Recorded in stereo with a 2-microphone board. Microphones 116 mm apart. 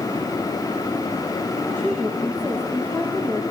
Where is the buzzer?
I don't hear a buzzer.